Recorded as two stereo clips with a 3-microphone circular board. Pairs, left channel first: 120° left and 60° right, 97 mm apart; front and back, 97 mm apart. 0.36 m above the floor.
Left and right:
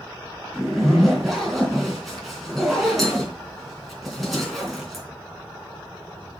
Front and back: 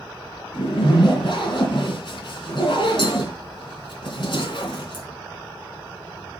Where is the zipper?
30° left, 3.5 m.